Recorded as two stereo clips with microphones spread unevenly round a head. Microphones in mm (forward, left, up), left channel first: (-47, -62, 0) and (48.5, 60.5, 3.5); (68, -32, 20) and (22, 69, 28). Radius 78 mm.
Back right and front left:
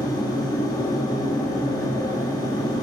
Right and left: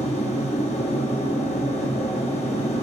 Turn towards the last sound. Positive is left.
turn(degrees=-70)